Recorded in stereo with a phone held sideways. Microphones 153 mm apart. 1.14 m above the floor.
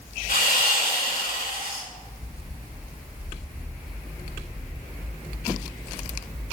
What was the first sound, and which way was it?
Sawing, 85° left.